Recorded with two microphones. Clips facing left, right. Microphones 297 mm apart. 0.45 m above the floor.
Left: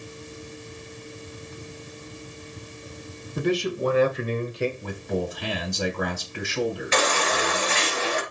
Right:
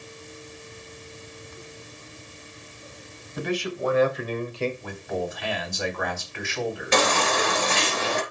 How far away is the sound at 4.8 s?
About 3 m.